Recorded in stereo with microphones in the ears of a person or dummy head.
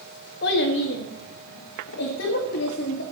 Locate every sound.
0.4 s a child speaking: 55° left (ahead or behind), 1.5 m; by 3.0 s 60° left (ahead or behind), 2 m